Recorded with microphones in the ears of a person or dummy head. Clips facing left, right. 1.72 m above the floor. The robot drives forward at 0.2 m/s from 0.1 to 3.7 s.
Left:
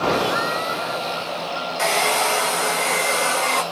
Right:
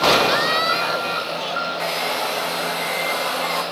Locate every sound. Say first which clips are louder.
1.8 s a hair dryer: left 6 dB; 70° left (ahead or behind), 0.6 m; by 3.6 s 45° left (ahead or behind), 0.8 m